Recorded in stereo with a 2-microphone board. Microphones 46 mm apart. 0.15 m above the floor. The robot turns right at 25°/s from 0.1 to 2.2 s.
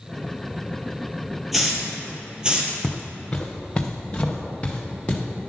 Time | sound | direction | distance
1.5 | a hiss | 5° right (ahead or behind) | 2 m
2.8 | footsteps | 20° left (ahead or behind) | 0.7 m